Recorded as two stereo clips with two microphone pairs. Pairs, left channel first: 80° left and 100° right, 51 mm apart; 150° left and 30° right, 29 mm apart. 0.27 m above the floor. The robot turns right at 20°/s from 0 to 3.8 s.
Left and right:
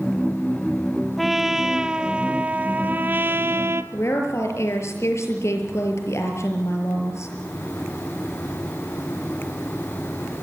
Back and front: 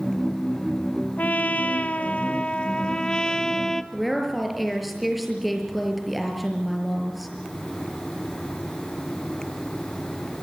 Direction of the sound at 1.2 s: 170° left.